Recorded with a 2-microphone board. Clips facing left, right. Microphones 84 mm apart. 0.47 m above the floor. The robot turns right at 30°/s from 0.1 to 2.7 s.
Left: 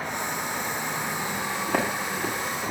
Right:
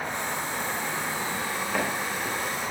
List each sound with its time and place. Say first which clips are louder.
1.7 s footsteps: left 3 dB; 60° left (ahead or behind), 9 m; by 2.7 s 90° left, 10.5 m